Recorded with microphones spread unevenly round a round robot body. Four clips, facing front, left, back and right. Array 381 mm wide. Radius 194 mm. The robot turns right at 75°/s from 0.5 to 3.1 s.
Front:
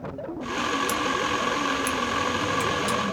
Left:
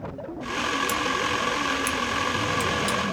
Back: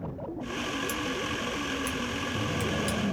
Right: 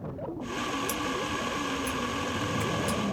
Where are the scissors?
5° left, 1.1 m; by 3.1 s 170° left, 1.1 m.